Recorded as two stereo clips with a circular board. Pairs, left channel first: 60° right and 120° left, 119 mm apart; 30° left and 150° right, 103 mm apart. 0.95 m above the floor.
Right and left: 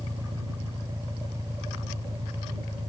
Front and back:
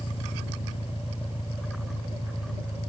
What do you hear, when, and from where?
0.0 s an engine running: 55° left